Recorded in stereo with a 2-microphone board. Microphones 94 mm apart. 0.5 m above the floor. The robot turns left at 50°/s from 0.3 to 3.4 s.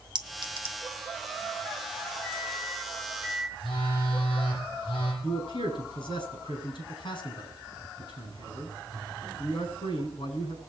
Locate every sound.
0.1 s a clink: 55° right (ahead or behind), 1.1 m; by 0.8 s 65° right (ahead or behind), 1.1 m
2.2 s a microwave: 170° left, 4.5 m; by 3.5 s 110° left, 4.5 m
3.6 s a phone buzzing: 85° left, 8.5 m
5.2 s a man speaking: 65° left (ahead or behind), 5 m